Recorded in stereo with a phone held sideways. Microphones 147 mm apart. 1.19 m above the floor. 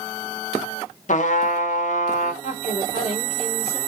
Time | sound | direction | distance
1.1 | a trumpet | 60° left (ahead or behind) | 0.6 m
2.4 | a woman speaking | 45° left (ahead or behind) | 1.3 m